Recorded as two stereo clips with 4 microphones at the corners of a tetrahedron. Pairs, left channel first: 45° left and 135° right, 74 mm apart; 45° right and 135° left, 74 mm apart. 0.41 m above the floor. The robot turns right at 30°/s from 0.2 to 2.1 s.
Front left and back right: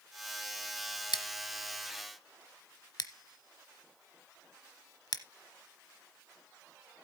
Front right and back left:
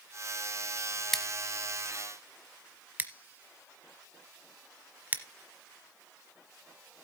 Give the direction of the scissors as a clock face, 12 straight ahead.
11 o'clock.